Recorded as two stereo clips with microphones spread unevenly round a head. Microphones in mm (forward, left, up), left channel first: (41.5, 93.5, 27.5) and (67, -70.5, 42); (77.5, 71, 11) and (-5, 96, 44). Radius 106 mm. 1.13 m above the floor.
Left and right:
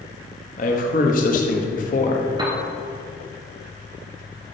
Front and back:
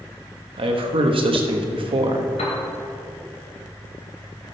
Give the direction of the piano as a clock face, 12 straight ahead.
1 o'clock.